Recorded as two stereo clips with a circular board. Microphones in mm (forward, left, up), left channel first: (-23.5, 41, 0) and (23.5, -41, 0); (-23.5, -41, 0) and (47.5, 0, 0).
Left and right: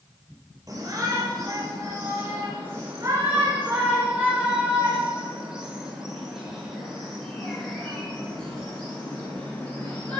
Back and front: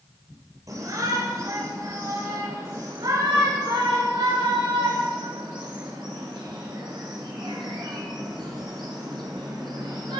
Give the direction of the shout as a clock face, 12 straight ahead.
12 o'clock.